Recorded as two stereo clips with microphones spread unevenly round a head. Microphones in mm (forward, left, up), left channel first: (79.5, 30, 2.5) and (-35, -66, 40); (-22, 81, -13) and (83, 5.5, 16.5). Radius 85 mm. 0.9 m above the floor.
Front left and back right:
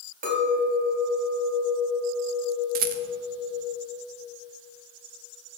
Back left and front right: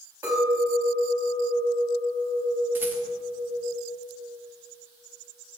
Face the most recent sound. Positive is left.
turn(degrees=-115)